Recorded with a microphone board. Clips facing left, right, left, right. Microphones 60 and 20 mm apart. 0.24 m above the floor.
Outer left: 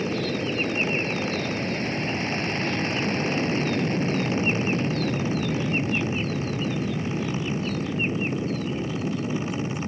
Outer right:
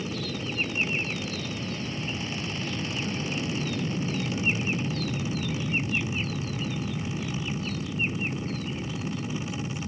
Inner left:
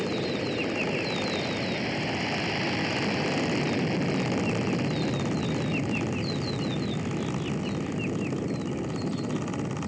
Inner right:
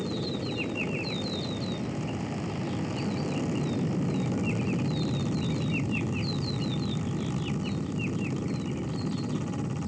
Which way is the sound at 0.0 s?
50° left (ahead or behind).